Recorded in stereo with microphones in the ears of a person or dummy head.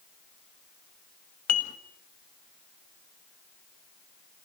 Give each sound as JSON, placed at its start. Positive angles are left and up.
{"t": 1.5, "sound": "dishes clattering", "side_deg": 55, "distance_m": 1.6}